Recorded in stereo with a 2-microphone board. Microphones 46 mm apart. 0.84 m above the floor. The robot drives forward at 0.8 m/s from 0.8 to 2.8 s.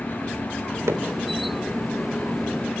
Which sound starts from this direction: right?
Hammering, at 0.9 s.